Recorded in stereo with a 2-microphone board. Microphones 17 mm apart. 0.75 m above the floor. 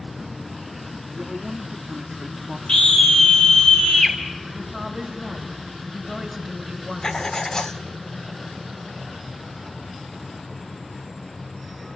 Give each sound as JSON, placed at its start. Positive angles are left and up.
{"t": 1.1, "sound": "a man speaking", "side_deg": -40, "distance_m": 0.8}
{"t": 2.7, "sound": "a scream", "side_deg": 70, "distance_m": 3.5}
{"t": 4.5, "sound": "a woman speaking", "side_deg": 0, "distance_m": 4.5}
{"t": 7.0, "sound": "writing", "side_deg": 35, "distance_m": 0.6}